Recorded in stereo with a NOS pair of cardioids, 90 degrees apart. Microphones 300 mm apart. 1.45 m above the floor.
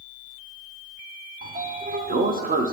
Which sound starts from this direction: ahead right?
A sliding door, at 1.4 s.